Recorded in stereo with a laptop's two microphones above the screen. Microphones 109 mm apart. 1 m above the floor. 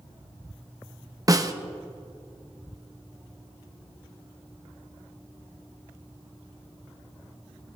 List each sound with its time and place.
1.3 s a snare drum: 30° right (ahead or behind), 0.8 m